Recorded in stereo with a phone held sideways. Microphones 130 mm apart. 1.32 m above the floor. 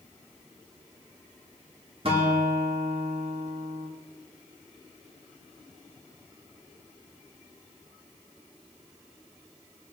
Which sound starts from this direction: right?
A guitar, at 2.0 s.